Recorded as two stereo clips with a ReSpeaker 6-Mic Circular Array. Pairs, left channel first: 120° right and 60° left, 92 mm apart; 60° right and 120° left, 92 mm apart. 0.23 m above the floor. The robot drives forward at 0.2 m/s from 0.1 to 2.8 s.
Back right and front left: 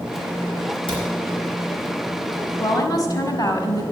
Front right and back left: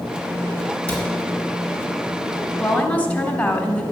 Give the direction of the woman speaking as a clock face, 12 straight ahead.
4 o'clock.